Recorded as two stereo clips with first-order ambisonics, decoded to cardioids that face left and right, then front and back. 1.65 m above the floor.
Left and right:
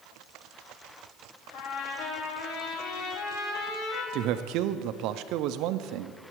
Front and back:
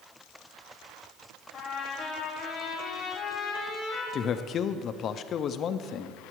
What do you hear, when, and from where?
1.5 s a trumpet: 55° left, 2.5 m
4.1 s a man speaking: 60° right, 0.6 m